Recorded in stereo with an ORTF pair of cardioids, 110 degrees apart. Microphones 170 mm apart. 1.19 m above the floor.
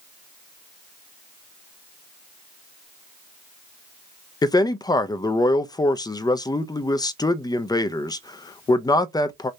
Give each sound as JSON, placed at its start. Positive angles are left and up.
{"t": 4.4, "sound": "a man speaking", "azimuth_deg": 25, "distance_m": 0.6}